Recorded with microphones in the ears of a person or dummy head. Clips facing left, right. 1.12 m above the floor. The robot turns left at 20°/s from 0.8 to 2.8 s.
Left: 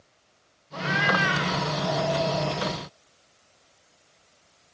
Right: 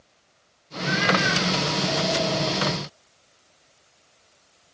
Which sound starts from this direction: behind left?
A cat meowing, at 0.7 s.